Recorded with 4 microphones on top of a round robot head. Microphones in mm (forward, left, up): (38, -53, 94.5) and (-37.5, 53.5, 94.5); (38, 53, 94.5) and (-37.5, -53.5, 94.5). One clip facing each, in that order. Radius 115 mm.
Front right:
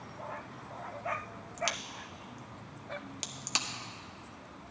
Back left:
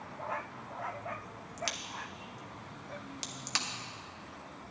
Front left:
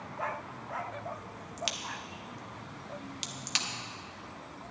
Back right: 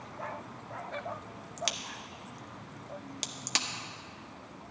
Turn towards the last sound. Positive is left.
turn(degrees=-120)